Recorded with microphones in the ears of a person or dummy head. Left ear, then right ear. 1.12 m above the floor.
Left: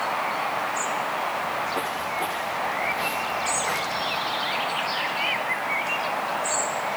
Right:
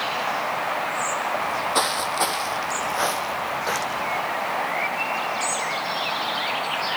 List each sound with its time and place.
1.4 s footsteps: 70° right (ahead or behind), 3 m; by 4.2 s 15° right (ahead or behind), 4.5 m